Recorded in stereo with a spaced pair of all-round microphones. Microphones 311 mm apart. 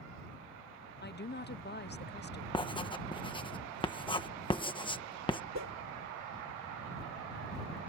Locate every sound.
1.0 s a woman speaking: 35° left (ahead or behind)
2.5 s writing: 15° left (ahead or behind)
5.5 s a whoosh: 60° right (ahead or behind)